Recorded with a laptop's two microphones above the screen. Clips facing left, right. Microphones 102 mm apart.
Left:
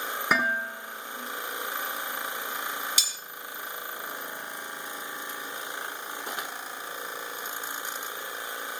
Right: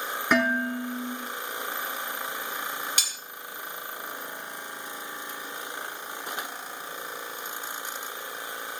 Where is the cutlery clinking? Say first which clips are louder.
Right 1 dB; 50° right (ahead or behind), 2.5 m.